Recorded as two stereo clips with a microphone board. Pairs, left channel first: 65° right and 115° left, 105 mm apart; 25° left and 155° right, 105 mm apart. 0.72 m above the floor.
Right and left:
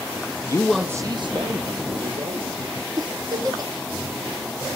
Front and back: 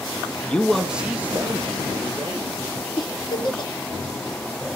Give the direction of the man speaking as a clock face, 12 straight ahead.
2 o'clock.